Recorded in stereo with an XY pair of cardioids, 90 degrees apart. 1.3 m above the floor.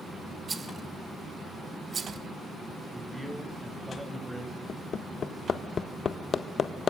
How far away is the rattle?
About 1.2 m.